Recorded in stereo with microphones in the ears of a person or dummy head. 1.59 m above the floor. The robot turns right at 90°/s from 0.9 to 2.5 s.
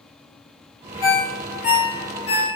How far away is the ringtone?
About 1.2 m.